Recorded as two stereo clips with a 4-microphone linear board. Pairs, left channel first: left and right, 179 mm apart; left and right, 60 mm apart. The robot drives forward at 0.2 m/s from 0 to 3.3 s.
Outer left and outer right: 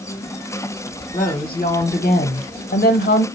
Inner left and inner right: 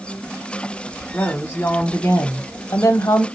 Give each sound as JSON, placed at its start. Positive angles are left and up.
{"t": 1.1, "sound": "a woman speaking", "side_deg": 35, "distance_m": 0.8}